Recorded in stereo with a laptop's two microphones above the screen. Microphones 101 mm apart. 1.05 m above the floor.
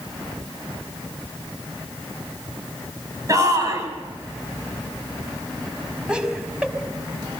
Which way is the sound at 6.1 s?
10° right (ahead or behind).